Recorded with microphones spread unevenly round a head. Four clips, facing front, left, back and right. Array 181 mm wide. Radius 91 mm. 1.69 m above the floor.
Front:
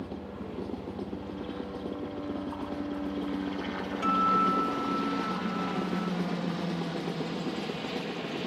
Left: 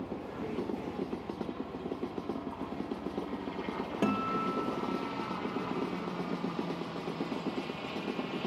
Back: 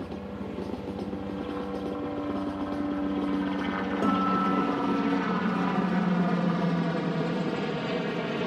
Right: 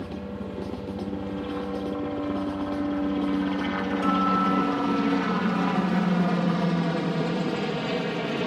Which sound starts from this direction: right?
A helicopter, at 0.0 s.